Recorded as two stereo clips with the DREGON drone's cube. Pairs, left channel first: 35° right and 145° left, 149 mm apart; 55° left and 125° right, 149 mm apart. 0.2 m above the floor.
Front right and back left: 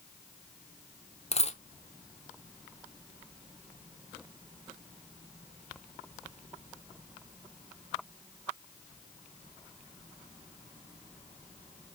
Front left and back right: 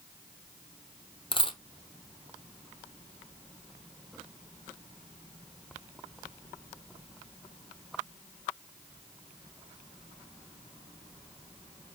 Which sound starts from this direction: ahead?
A dropped coin, at 1.3 s.